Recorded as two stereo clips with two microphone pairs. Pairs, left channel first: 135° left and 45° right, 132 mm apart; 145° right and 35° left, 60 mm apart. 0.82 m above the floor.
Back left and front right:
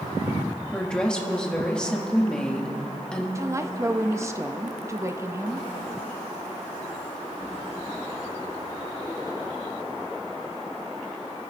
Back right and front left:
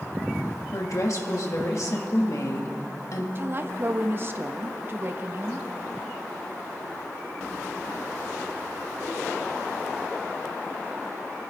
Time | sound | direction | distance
0.7 | a woman speaking | 145° right | 1.4 m
3.4 | a woman speaking | 10° left | 0.8 m